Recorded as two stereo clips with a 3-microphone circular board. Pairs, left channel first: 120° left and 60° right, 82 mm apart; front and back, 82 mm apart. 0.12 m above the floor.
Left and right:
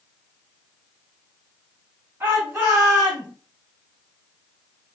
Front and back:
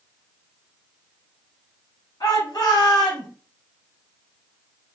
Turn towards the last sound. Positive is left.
turn(degrees=15)